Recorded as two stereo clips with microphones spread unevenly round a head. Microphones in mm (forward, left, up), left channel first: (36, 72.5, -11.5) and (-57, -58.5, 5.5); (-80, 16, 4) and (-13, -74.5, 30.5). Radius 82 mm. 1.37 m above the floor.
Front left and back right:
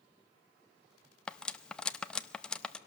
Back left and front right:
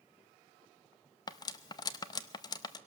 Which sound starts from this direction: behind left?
Cutlery clinking, at 1.3 s.